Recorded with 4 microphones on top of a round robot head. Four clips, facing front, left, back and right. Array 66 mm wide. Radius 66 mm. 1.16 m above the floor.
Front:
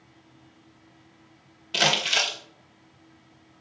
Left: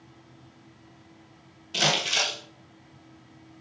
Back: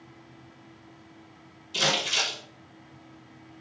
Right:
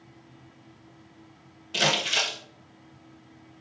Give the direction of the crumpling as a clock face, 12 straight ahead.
12 o'clock.